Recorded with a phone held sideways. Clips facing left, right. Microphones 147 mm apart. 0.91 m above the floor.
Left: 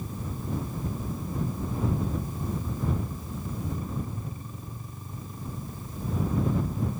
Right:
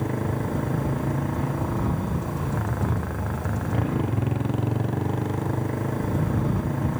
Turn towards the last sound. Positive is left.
turn(degrees=-80)